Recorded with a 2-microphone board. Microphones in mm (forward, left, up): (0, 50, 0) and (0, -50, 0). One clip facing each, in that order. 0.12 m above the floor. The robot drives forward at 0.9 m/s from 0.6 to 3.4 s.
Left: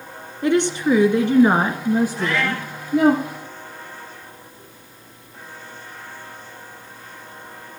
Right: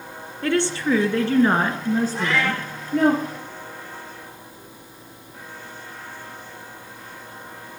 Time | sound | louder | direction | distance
0.4 | a woman speaking | left 3 dB | 15° left (ahead or behind) | 1.4 m
2.1 | a cat meowing | even | 70° right (ahead or behind) | 5.5 m